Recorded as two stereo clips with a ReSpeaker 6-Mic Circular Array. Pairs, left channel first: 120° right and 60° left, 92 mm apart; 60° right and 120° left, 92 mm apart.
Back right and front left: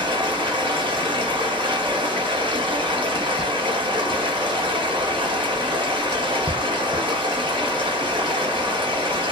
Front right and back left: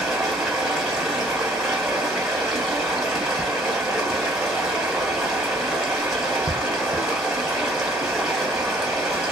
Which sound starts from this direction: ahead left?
Running water, at 0.0 s.